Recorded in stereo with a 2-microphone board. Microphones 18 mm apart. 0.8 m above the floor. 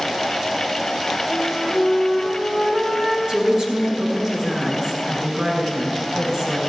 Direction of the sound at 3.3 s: 40° right (ahead or behind).